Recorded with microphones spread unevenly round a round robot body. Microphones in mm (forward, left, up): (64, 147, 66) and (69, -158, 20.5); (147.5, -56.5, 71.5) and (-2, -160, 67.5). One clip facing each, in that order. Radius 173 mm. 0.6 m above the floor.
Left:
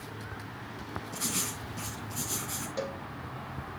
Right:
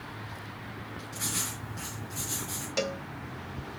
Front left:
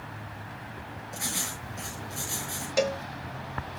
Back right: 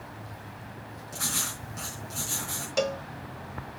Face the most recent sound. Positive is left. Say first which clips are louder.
# right 4 dB, front left 1 dB
turn(degrees=-50)